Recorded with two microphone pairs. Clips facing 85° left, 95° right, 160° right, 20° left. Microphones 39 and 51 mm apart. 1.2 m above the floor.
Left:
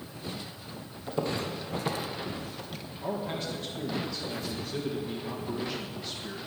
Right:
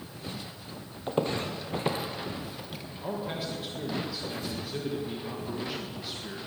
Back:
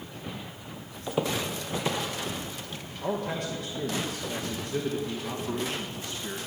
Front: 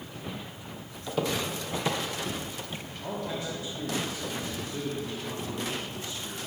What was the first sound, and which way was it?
Footsteps, 95° right.